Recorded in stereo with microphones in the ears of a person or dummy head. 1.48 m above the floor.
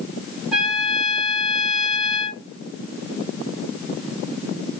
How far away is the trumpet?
About 0.9 m.